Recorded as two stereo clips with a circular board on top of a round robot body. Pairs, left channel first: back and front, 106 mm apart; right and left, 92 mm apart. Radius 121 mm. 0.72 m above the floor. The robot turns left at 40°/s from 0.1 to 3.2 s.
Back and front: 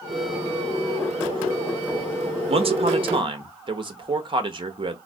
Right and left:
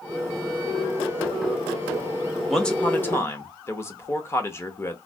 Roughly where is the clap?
I don't hear a clap.